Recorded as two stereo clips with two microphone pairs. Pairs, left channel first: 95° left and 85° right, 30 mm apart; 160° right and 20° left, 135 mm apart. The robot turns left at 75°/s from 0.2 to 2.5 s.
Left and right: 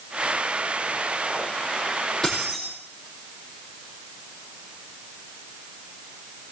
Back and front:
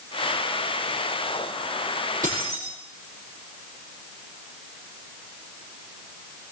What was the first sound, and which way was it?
Keys jangling, 20° left.